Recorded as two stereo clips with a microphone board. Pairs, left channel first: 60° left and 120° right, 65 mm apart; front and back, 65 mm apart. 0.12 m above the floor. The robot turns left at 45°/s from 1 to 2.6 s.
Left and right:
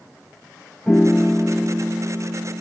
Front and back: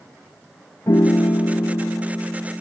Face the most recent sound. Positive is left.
turn(degrees=-80)